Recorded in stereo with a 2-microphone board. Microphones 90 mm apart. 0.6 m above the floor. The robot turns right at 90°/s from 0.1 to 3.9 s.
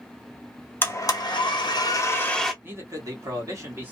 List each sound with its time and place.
0.8 s a blender: 25° left, 0.8 m; by 2.5 s straight behind, 0.8 m
2.6 s a man speaking: 145° right, 1.3 m; by 3.9 s 30° right, 1.3 m